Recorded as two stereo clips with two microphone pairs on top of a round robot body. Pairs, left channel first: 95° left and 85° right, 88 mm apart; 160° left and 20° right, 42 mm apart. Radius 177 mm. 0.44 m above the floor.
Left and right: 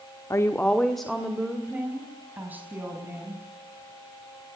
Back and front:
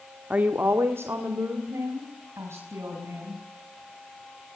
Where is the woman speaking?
40° left, 1.2 m; by 3.4 s 20° right, 5.5 m.